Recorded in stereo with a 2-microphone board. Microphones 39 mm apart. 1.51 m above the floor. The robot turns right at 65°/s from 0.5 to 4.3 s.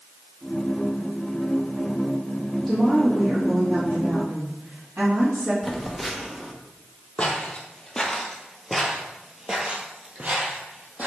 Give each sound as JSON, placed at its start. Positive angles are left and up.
{"t": 2.7, "sound": "a woman speaking", "azimuth_deg": -165, "distance_m": 3.0}
{"t": 5.6, "sound": "a phone buzzing", "side_deg": 0, "distance_m": 1.0}
{"t": 7.2, "sound": "footsteps", "side_deg": 25, "distance_m": 2.0}